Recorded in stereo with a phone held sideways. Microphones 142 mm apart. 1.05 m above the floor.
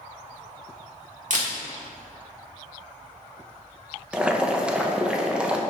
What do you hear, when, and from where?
1.3 s a camera shutter: 60° right (ahead or behind), 1.4 m
4.1 s boiling: 5° right (ahead or behind), 0.6 m